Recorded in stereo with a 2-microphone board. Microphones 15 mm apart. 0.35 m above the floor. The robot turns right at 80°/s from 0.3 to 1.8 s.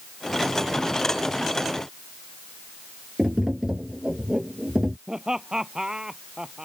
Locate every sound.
3.2 s tapping: 30° right (ahead or behind)
5.1 s laughter: 35° right (ahead or behind)